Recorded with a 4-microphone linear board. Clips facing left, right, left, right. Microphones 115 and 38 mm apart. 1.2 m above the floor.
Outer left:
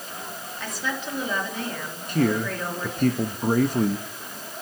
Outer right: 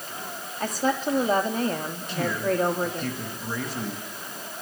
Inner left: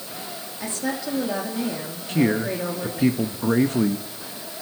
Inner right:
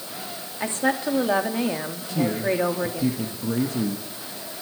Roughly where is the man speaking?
Left.